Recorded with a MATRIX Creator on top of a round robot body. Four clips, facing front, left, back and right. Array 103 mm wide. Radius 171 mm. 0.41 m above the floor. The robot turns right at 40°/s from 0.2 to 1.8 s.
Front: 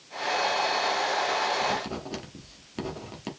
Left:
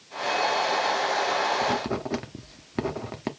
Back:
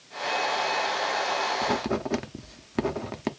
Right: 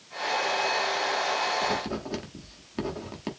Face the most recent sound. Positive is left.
turn(degrees=150)